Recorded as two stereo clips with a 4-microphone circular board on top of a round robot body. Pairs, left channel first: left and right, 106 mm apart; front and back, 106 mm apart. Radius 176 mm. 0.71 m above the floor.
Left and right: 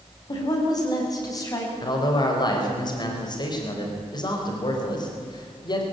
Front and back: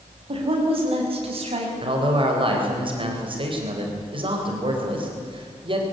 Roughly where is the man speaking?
Behind left.